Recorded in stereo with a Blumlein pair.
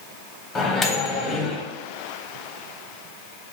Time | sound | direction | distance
0.6 | a microwave | 15° left | 0.8 m